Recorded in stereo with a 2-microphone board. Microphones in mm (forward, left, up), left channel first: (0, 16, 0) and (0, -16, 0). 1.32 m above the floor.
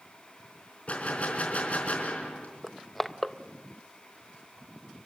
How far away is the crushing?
About 0.7 m.